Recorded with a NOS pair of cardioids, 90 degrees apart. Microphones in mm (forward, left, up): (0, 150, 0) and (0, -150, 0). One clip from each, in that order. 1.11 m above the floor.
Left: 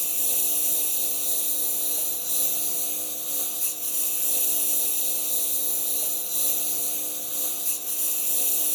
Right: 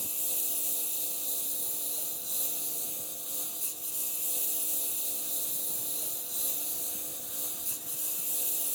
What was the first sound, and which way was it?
A lawn mower, 45° left.